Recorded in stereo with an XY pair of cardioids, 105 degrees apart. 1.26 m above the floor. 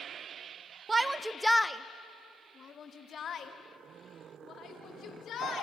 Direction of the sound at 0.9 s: 25° right.